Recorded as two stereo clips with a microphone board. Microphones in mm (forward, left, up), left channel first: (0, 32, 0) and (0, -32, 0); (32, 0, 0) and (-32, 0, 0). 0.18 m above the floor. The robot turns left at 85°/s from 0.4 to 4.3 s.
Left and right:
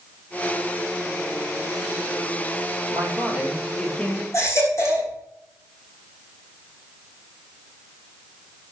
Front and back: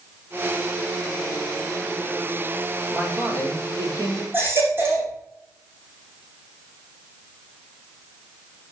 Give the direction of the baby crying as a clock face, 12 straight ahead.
8 o'clock.